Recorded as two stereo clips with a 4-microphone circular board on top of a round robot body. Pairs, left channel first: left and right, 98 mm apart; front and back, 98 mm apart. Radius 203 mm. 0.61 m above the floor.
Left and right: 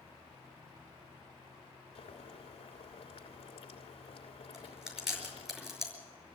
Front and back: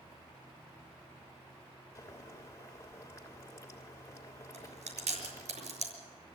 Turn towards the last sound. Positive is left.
turn(degrees=-175)